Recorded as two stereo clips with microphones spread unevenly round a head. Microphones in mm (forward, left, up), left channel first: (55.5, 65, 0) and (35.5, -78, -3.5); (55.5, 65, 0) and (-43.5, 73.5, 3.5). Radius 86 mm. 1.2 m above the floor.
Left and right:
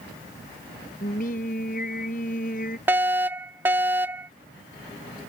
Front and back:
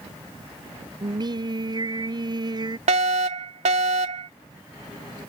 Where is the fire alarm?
175° right.